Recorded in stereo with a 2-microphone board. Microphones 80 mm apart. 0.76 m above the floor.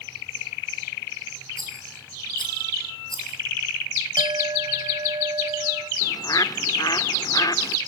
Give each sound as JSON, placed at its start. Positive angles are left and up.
{"t": 1.6, "sound": "a rattle", "side_deg": 75, "distance_m": 8.0}
{"t": 4.2, "sound": "a clink", "side_deg": -85, "distance_m": 2.5}
{"t": 6.0, "sound": "a bird", "side_deg": 50, "distance_m": 0.9}